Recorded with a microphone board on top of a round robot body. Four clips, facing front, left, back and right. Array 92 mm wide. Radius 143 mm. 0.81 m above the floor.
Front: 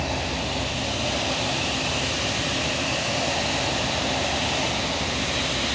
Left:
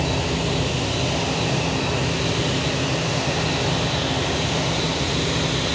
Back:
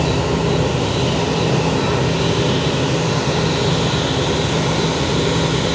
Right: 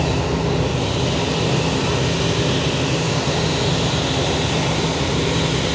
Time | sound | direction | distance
0.0 | an insect | 165° right | ?